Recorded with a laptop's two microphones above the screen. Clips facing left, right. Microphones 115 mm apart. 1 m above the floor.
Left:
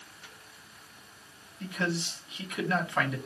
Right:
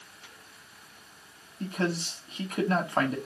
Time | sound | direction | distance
1.6 | a man speaking | 40° right (ahead or behind) | 1.6 m